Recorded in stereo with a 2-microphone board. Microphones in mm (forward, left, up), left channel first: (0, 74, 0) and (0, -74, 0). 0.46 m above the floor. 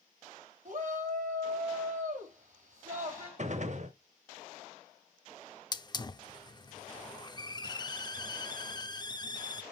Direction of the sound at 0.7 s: 55° right (ahead or behind).